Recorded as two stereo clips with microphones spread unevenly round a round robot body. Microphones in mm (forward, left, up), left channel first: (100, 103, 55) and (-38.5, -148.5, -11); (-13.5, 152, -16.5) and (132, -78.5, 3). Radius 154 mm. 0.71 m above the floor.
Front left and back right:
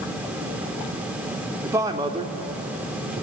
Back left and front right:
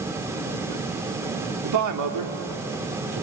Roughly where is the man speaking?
Ahead right.